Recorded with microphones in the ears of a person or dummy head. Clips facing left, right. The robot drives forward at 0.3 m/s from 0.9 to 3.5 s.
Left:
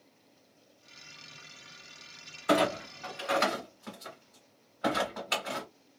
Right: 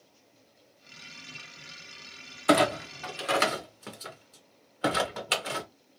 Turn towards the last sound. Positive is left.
turn(degrees=-40)  # may be behind; listen again after turning